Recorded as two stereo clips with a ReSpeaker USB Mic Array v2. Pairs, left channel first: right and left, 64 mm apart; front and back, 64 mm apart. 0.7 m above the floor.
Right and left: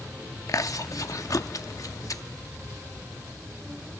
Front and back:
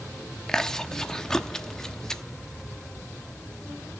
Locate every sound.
0.5 s chewing: 80° right, 0.8 m